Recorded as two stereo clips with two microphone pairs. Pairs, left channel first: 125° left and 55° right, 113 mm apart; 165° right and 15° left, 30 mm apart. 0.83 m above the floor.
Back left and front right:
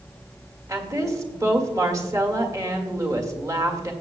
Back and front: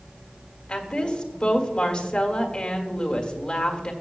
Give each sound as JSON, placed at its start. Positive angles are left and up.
{"t": 0.7, "sound": "a woman speaking", "azimuth_deg": -105, "distance_m": 1.6}